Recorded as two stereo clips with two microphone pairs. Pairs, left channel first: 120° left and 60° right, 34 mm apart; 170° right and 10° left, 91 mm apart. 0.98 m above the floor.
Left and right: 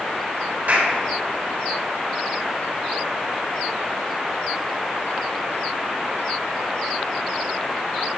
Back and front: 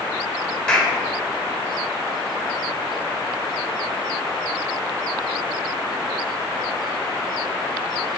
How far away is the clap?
About 3.5 m.